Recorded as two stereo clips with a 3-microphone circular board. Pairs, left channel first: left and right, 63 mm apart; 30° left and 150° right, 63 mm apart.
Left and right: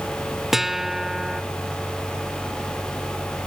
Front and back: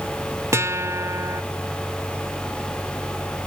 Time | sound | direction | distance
0.5 | a guitar | 175° right | ?